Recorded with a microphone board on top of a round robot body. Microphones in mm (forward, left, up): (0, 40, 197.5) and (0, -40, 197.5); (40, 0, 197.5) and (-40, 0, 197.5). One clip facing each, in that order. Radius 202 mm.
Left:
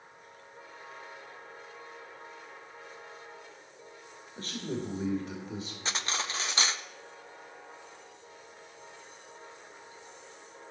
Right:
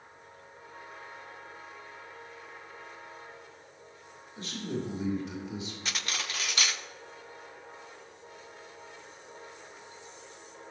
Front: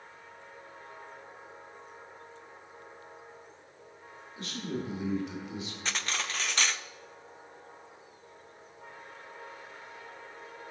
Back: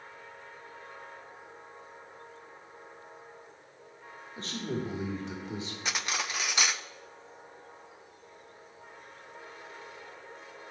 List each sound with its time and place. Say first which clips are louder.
4.4 s a man speaking: even, back 1 dB; 130° left, 2.5 m
5.8 s cutlery clinking: left 4 dB, back 1 dB; 110° left, 0.5 m